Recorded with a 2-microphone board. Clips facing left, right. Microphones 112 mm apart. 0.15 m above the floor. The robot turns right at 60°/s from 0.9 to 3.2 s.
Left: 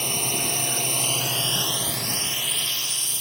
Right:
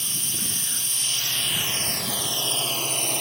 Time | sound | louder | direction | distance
0.0 | a drone | left 9 dB | 115° left | ?